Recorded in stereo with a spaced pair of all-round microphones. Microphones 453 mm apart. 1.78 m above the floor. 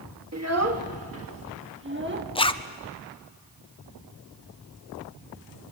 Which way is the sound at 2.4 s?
10° left (ahead or behind).